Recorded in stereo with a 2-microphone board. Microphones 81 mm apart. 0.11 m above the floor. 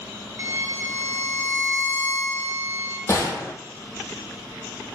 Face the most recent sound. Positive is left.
turn(degrees=40)  # may be behind; listen again after turning